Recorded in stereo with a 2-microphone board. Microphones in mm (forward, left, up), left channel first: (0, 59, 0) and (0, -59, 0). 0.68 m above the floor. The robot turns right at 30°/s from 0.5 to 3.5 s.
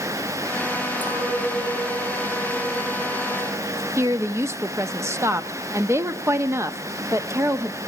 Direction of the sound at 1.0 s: 165° left.